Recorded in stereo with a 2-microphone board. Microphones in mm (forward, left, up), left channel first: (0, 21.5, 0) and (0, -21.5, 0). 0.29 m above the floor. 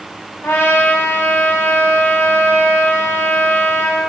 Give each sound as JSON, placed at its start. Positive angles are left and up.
{"t": 0.4, "sound": "a trumpet", "side_deg": 65, "distance_m": 0.7}